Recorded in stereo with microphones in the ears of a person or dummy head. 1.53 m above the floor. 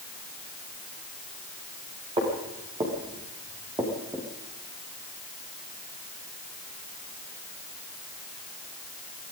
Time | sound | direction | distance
2.2 | footsteps | 25° right (ahead or behind) | 8.5 m